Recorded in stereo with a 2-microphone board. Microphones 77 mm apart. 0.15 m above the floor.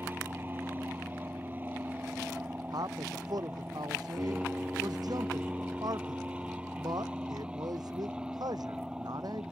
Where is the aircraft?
25° right (ahead or behind); by 9.5 s 10° right (ahead or behind).